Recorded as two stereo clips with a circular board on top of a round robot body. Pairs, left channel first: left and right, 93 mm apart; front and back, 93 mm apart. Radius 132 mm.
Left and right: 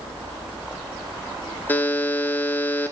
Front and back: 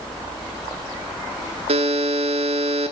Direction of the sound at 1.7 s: 160° left.